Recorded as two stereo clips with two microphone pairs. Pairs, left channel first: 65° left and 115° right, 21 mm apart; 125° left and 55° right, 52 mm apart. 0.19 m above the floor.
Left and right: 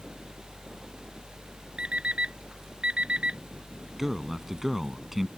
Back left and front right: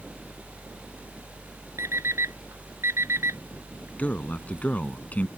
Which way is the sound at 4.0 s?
170° left.